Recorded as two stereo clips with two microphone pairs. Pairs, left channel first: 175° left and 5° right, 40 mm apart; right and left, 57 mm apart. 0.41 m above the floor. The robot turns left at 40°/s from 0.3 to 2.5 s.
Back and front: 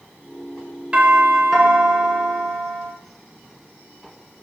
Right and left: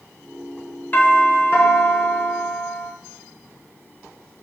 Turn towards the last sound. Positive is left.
turn(degrees=-115)